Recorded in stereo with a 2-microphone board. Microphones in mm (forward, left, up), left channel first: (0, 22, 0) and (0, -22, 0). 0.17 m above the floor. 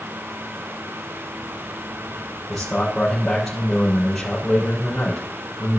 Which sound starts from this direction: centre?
A man speaking, at 2.5 s.